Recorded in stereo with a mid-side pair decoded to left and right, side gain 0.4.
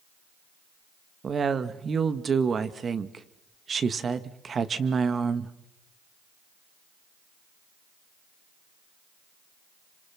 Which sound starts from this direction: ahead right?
A woman speaking, at 1.2 s.